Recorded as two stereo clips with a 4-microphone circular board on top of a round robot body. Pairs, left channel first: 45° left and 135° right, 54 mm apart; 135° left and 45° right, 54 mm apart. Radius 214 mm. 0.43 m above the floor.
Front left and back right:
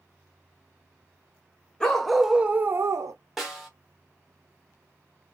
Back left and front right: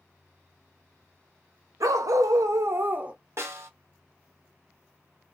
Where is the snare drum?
45° right, 1.5 m.